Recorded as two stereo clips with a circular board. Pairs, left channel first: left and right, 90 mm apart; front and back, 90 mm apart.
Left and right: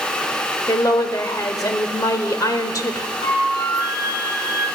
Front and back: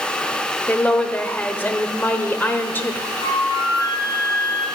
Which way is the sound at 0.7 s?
60° left.